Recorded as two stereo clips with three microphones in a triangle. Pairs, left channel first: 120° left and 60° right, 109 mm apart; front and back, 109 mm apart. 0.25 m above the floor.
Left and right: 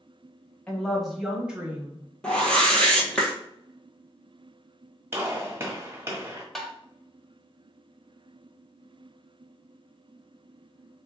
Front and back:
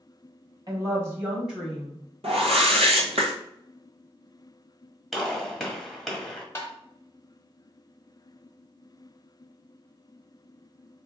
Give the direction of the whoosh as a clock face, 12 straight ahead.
5 o'clock.